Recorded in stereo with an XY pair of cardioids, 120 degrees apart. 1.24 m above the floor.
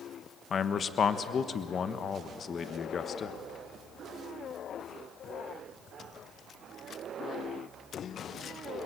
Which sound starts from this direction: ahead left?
A man speaking, at 0.5 s.